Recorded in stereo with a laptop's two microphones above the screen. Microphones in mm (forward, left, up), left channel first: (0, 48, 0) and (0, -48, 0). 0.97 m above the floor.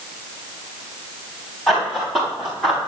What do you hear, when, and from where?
1.7 s running footsteps: centre (ahead or behind), 6.5 m; by 2.8 s 10° right (ahead or behind), 6 m